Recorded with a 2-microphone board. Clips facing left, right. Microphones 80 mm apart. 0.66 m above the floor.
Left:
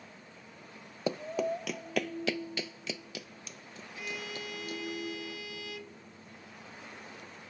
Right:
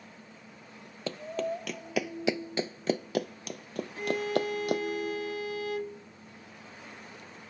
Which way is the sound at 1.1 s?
15° left (ahead or behind).